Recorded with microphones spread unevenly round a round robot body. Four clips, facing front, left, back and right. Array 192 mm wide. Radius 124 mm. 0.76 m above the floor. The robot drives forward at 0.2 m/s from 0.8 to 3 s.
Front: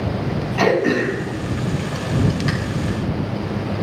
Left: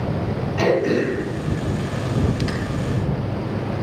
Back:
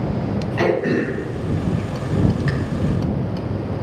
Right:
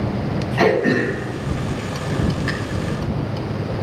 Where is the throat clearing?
110° right, 5 m; by 2.5 s 115° right, 5 m.